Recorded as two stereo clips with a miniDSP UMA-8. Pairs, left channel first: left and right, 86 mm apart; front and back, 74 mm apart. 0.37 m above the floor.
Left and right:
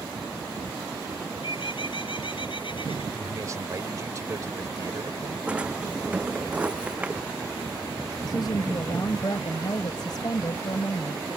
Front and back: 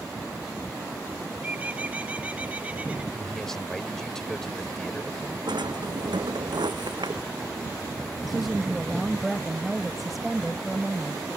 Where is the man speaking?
80° right.